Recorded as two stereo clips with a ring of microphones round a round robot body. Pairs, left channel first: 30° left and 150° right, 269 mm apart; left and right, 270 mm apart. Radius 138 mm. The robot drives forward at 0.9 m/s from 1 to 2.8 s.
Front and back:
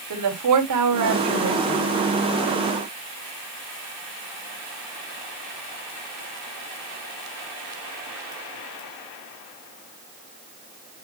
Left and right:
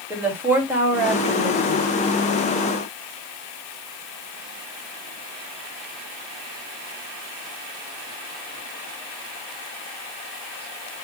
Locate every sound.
0.1 s a woman speaking: 175° right, 3.5 m